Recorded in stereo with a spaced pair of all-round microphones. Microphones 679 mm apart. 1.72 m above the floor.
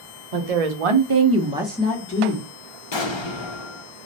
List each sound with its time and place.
0.3 s a woman speaking: 65° right (ahead or behind), 0.8 m; by 2.5 s 30° left (ahead or behind), 0.9 m
2.9 s an explosion: 45° left (ahead or behind), 0.6 m